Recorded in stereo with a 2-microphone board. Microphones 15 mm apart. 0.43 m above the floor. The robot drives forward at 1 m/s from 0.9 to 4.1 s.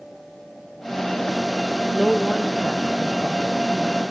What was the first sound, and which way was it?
A woman speaking, 25° right (ahead or behind).